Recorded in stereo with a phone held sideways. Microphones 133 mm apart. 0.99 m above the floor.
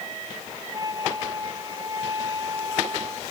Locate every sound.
0.7 s a flute: 30° right (ahead or behind)